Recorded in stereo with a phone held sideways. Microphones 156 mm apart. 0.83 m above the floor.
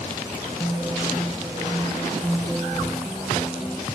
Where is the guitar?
Centre (ahead or behind).